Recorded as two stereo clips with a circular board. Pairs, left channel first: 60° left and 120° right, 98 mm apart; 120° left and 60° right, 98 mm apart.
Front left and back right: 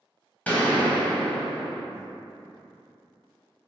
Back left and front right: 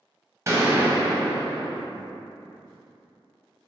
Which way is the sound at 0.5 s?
10° right.